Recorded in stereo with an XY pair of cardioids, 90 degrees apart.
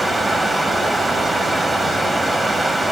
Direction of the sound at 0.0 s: 15° right.